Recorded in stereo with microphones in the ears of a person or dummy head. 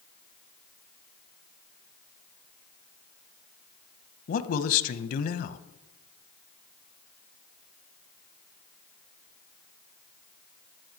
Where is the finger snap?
I don't hear a finger snap.